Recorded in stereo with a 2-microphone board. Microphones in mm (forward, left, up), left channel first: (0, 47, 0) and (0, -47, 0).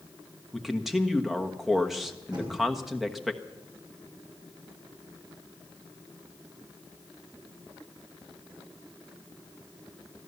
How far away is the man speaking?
About 1.2 m.